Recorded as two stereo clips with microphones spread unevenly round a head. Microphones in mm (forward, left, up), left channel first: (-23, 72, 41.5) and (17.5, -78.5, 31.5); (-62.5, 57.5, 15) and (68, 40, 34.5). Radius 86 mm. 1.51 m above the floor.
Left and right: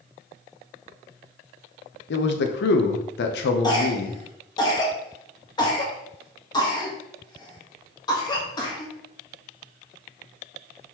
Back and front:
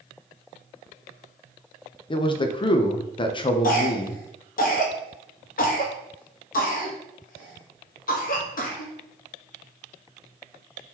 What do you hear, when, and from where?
2.1 s a man speaking: 120° left, 0.5 m
3.6 s a cough: 170° left, 1.1 m